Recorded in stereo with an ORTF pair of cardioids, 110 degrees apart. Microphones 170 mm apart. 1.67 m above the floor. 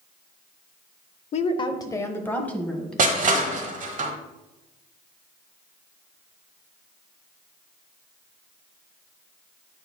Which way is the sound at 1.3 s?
45° left.